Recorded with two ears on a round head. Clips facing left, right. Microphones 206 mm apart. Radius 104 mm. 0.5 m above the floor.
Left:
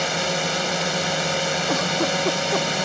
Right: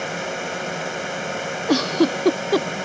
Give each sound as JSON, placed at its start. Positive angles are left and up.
{"t": 0.0, "sound": "a drone", "side_deg": 55}
{"t": 1.7, "sound": "a giggle", "side_deg": -45}